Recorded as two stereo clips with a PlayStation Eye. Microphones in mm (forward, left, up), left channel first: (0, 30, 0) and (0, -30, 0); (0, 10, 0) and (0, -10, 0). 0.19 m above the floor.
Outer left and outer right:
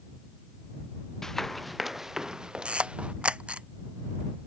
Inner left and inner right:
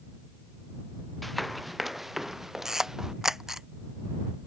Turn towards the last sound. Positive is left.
turn(degrees=-20)  # may be behind; listen again after turning